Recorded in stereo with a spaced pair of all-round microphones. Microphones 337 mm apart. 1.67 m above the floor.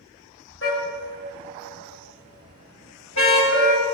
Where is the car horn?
40° left (ahead or behind), 4 m; by 3.8 s 55° left (ahead or behind), 5 m.